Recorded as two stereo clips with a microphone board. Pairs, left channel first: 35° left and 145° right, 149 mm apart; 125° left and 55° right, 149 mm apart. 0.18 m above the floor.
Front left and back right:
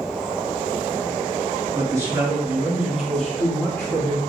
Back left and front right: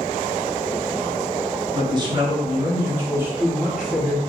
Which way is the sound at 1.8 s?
90° right.